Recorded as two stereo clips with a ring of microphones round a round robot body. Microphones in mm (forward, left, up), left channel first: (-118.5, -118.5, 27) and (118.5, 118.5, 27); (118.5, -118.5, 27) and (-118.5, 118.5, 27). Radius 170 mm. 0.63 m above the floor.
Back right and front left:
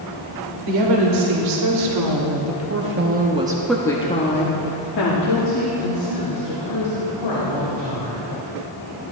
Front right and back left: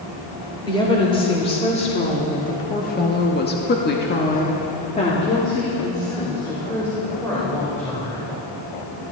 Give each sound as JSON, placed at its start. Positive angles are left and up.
{"t": 0.7, "sound": "a woman speaking", "azimuth_deg": 30, "distance_m": 3.0}